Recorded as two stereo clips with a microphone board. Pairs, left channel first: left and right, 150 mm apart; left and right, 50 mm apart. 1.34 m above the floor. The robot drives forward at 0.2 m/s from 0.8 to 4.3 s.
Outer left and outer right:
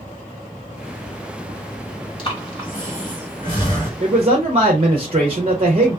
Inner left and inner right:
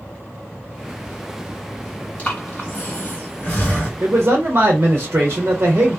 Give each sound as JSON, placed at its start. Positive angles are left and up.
{"t": 2.2, "sound": "breathing", "side_deg": 35, "distance_m": 1.4}
{"t": 4.0, "sound": "a man speaking", "side_deg": -45, "distance_m": 0.6}